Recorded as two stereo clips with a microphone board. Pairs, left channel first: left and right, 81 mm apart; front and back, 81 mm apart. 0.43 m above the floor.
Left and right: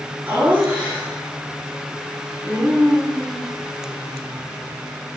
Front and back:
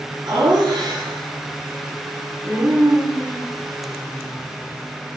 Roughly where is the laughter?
Behind.